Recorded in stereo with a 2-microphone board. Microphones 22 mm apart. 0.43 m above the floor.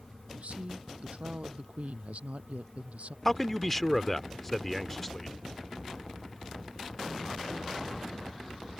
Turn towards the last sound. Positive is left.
turn(degrees=15)  # may be behind; listen again after turning